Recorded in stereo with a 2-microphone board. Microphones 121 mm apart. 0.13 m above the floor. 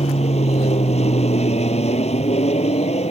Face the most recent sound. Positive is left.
turn(degrees=65)  # may be behind; listen again after turning